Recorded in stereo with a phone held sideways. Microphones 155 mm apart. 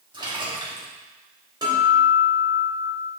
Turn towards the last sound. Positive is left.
turn(degrees=-25)  # may be behind; listen again after turning